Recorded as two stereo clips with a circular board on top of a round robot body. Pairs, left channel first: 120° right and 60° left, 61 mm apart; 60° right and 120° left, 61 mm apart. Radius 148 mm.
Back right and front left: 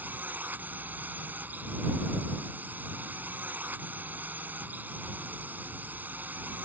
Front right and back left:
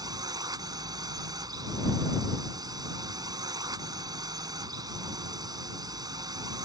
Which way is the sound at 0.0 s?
125° left.